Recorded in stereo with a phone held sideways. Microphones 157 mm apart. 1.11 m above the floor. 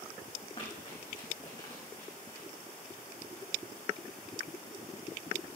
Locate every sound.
0.6 s running footsteps: 35° left (ahead or behind), 5.5 m; by 2.5 s 25° left (ahead or behind), 5 m